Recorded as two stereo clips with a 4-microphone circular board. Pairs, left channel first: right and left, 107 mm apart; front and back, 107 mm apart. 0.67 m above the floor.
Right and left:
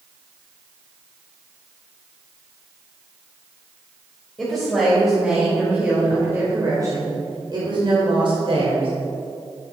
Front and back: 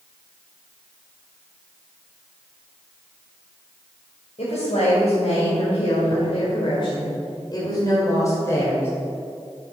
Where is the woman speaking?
Straight ahead, 3 m; by 8.9 s 65° left, 3 m.